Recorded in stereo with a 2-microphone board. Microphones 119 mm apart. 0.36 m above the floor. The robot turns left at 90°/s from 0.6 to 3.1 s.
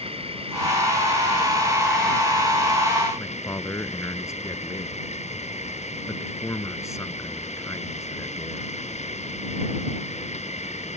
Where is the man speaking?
25° left (ahead or behind).